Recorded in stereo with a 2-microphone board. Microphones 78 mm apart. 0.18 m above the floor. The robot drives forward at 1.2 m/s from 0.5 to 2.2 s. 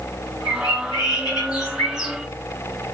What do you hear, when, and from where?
0.5 s a bird: 60° left (ahead or behind), 7 m; by 2.1 s 50° left (ahead or behind), 8 m